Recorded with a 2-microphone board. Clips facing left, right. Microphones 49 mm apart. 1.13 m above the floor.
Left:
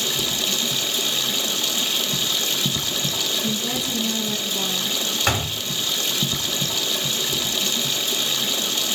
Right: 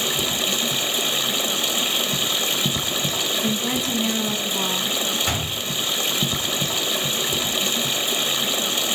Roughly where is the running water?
Centre.